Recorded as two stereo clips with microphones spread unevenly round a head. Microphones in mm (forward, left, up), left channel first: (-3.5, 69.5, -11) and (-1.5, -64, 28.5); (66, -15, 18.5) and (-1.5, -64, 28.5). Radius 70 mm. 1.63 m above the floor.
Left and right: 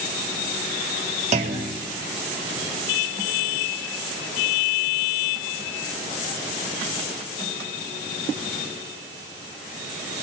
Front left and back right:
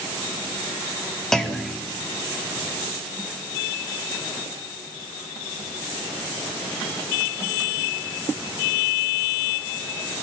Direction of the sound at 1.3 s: 50° right.